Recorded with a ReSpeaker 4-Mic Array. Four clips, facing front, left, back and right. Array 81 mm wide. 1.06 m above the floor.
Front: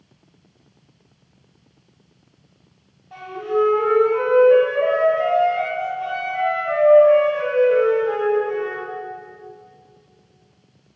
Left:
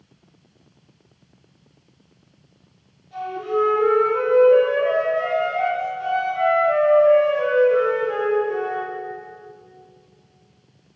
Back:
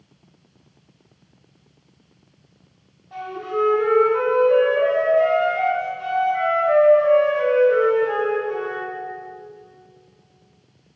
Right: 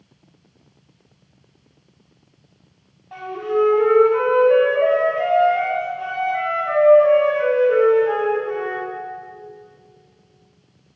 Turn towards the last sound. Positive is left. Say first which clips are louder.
# right 2 dB, front 3 dB
turn(degrees=-85)